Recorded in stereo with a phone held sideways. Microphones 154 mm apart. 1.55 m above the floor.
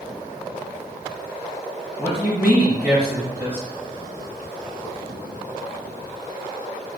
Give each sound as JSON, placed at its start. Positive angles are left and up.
{"t": 2.0, "sound": "a man speaking", "side_deg": -10, "distance_m": 1.7}